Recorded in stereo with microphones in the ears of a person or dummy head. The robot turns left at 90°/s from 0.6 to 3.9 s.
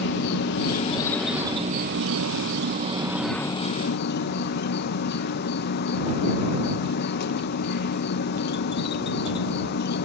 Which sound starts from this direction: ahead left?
An insect, at 0.0 s.